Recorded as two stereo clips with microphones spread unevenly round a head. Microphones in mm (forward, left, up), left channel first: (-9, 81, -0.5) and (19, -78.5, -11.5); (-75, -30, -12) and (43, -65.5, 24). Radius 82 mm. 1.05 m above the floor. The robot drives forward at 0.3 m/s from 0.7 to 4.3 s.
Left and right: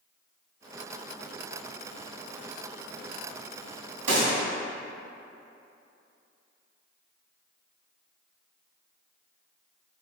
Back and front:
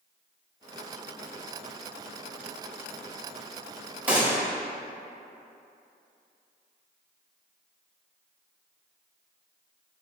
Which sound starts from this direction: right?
A gunshot, at 4.1 s.